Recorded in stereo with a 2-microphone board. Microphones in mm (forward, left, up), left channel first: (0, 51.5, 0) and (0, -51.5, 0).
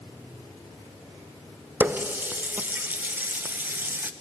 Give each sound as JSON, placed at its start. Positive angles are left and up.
{"t": 1.8, "sound": "a running tap", "side_deg": -20, "distance_m": 0.7}